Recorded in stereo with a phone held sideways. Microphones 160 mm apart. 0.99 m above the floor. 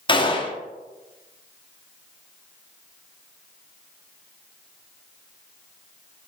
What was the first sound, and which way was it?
A gunshot, 30° left (ahead or behind).